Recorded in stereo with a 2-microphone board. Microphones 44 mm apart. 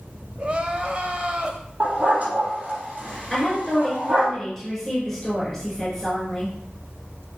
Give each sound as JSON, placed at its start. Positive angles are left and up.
{"t": 0.4, "sound": "crying", "side_deg": -30, "distance_m": 1.1}
{"t": 1.8, "sound": "a dog barking", "side_deg": -35, "distance_m": 3.0}
{"t": 3.3, "sound": "a woman speaking", "side_deg": -5, "distance_m": 4.0}